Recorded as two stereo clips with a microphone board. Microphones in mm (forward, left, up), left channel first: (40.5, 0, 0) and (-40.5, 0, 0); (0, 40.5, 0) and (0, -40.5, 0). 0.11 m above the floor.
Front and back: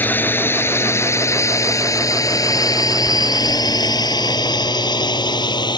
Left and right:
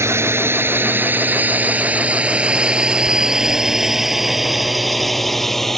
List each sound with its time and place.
0.0 s a drone: 55° right; by 5.8 s 5° left